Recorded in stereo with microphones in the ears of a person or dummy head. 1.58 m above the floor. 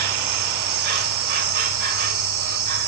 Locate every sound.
0.0 s an insect: 45° right (ahead or behind), 2.5 m